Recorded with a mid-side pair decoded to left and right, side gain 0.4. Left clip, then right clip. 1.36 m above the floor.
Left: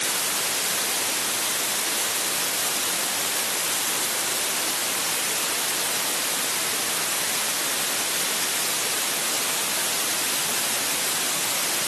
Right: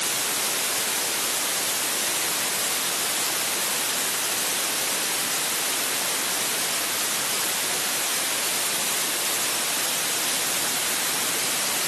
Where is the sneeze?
No sneeze in this recording.